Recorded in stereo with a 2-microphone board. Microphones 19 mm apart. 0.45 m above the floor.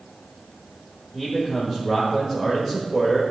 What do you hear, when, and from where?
1.1 s a man speaking: 20° right (ahead or behind), 1.4 m